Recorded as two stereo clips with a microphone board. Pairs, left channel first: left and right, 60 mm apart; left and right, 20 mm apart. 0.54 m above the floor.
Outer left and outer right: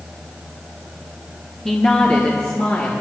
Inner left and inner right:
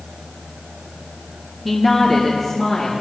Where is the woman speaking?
10° left (ahead or behind), 0.9 m; by 3.0 s 35° left (ahead or behind), 1.8 m.